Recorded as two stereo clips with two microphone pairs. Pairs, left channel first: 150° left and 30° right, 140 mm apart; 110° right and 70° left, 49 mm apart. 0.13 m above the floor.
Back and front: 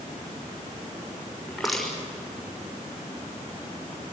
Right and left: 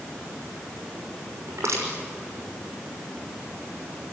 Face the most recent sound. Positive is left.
turn(degrees=60)